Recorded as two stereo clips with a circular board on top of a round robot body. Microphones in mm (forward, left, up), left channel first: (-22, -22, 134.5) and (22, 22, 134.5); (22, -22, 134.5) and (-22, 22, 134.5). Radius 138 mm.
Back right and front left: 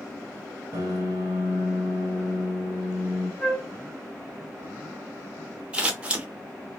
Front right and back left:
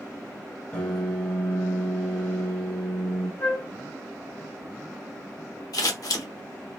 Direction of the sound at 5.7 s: 30° right.